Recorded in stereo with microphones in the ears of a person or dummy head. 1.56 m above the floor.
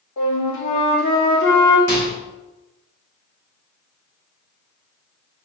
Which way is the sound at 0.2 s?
65° left (ahead or behind).